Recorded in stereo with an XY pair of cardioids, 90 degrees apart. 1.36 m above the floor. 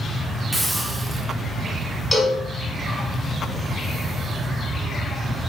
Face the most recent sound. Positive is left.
turn(degrees=25)